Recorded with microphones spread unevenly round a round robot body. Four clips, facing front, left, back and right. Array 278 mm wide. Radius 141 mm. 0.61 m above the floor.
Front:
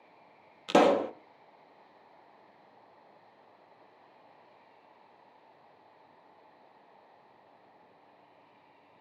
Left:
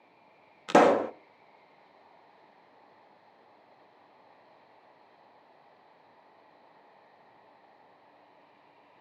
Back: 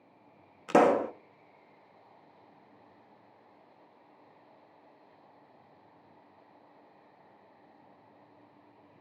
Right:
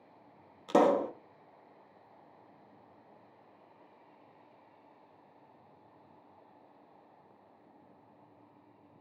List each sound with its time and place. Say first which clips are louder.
0.7 s a pop: left 5 dB, even; 75° left, 0.5 m